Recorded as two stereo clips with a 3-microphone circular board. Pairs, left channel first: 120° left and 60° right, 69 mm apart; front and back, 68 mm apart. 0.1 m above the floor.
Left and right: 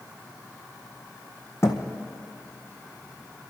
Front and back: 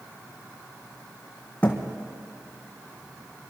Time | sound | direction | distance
1.6 | a thud | 70° left | 1.7 m